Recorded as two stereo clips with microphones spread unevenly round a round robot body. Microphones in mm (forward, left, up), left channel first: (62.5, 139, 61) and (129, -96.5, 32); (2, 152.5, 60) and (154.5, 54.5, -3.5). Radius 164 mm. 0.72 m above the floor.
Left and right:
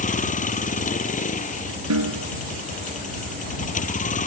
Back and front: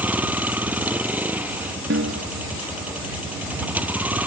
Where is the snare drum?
75° right.